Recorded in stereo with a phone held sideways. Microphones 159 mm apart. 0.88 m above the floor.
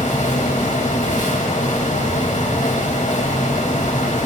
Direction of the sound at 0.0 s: 50° left (ahead or behind).